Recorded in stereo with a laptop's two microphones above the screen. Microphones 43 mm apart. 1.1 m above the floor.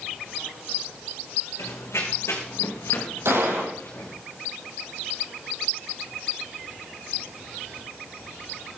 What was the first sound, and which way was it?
Running footsteps, 75° left (ahead or behind).